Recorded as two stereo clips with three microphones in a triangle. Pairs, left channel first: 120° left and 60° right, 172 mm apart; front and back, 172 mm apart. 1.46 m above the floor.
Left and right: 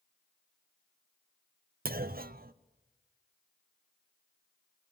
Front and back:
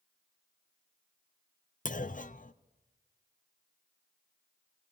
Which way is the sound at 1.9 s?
35° right.